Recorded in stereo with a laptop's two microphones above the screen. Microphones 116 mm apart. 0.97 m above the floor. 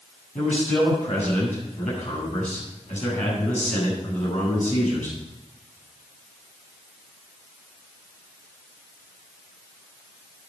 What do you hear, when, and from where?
0.3 s a man speaking: 85° left, 8.5 m